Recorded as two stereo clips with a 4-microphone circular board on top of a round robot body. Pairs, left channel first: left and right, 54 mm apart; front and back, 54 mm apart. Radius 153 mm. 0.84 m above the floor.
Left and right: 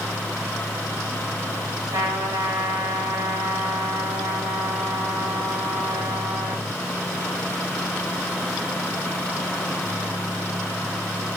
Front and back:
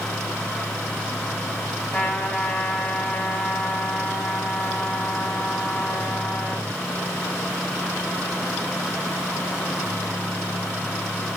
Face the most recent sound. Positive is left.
turn(degrees=-75)